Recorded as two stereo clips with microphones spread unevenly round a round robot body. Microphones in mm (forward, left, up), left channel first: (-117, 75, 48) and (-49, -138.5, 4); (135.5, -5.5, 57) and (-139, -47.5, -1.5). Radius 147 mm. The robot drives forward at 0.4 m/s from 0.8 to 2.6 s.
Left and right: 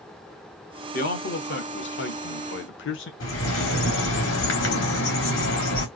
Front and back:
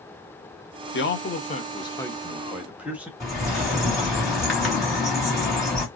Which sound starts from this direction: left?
A bird, at 3.2 s.